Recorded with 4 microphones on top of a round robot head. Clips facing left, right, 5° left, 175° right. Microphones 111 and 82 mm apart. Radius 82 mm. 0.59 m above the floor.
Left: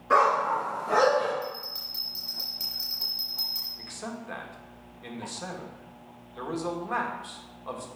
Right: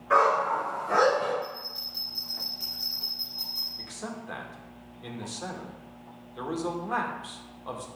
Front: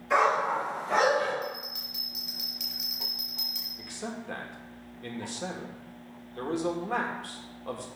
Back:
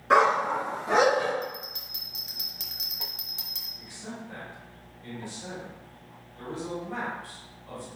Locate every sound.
0.1 s a dog barking: 160° left, 2.5 m; by 1.3 s 170° left, 4 m
1.4 s a bell: 145° left, 3.5 m
3.8 s a man speaking: 5° right, 1.6 m